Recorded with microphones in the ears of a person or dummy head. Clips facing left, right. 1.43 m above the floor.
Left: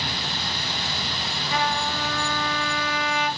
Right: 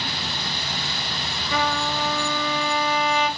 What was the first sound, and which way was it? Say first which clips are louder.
A trumpet: right 2 dB; 85° right.